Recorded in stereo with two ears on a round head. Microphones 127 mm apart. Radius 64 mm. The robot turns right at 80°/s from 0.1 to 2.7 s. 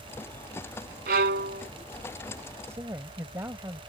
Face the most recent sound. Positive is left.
turn(degrees=-20)  # may be behind; listen again after turning